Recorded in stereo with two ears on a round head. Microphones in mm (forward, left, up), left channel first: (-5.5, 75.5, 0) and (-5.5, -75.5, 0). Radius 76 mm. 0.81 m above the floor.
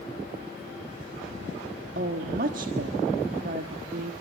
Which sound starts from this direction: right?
A woman speaking, at 1.9 s.